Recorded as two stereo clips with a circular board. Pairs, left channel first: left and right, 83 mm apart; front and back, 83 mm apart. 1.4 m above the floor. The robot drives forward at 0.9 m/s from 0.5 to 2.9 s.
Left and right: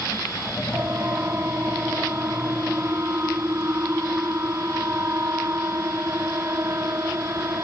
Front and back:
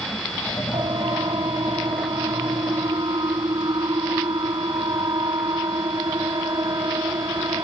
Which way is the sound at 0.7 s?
150° right.